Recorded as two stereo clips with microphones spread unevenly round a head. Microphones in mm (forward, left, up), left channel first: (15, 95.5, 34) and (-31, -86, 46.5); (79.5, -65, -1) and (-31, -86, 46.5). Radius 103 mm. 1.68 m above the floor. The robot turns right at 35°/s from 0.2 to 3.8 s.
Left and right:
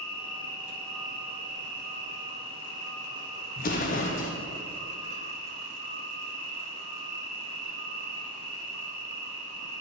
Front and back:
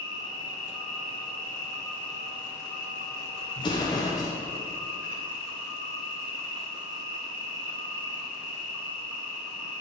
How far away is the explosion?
About 0.5 m.